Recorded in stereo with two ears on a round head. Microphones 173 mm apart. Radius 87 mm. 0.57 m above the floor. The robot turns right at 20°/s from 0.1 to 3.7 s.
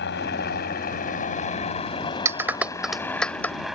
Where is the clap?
15° right (ahead or behind); by 3.5 s 10° left (ahead or behind).